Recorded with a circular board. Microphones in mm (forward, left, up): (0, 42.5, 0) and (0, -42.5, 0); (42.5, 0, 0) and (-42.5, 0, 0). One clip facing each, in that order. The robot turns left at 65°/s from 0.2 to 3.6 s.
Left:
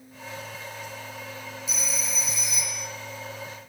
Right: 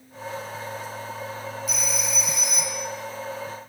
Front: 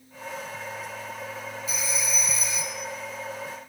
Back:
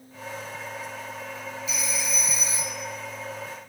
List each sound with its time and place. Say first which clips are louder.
1.7 s a phone ringing: right 2 dB, even; 50° right, 3.5 m; by 2.9 s 130° right, 3.5 m